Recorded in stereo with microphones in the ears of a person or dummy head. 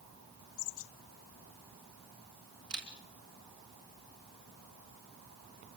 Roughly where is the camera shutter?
Right.